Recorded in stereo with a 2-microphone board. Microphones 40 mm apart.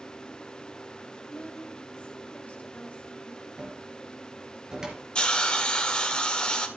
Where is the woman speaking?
40° left (ahead or behind), 3.5 m.